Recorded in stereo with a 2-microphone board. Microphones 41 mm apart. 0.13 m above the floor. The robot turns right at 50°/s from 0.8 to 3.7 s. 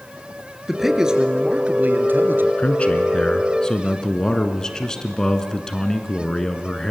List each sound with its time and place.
0.7 s a man speaking: 175° right, 2.5 m; by 2.5 s 90° right, 2.5 m
2.6 s a man speaking: 95° left, 1.8 m; by 6.9 s 150° left, 1.8 m